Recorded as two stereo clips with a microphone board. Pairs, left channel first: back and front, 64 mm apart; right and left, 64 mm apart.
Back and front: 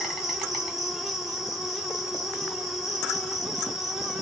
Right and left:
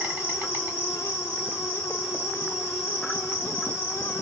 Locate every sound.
0.0 s an insect: 75° left, 1.7 m